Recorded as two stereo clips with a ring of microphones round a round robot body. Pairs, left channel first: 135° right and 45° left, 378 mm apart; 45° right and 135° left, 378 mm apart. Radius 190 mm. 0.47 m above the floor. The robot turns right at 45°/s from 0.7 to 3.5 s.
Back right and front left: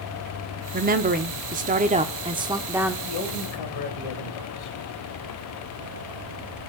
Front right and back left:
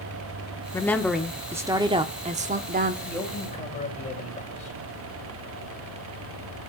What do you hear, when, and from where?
0.7 s a woman speaking: 25° left, 0.7 m; by 3.0 s 125° left, 0.7 m
3.0 s a man speaking: 135° right, 2.5 m; by 4.8 s 115° right, 2.5 m